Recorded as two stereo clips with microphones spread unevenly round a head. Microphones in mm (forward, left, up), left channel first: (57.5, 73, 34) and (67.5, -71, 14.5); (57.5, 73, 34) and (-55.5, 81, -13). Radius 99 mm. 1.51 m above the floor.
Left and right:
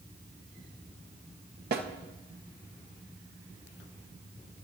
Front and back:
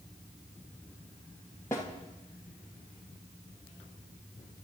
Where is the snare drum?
85° right, 1.3 m.